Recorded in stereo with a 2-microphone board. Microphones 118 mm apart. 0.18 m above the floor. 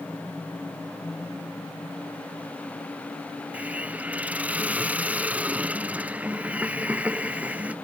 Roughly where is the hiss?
Centre.